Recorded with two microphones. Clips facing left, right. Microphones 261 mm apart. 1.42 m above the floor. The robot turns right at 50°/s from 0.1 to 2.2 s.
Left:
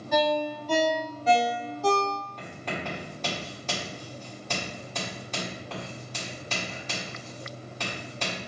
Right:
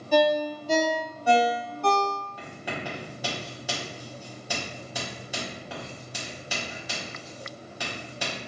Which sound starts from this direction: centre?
Writing, at 2.4 s.